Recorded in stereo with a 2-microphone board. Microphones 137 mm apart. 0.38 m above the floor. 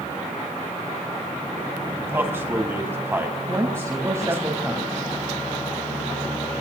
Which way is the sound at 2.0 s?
15° right (ahead or behind).